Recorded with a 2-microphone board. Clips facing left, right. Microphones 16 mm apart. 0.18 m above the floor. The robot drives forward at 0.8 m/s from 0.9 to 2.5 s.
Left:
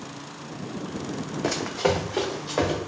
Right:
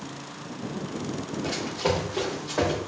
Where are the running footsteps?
80° left, 0.7 m; by 2.8 s 25° left (ahead or behind), 1.7 m.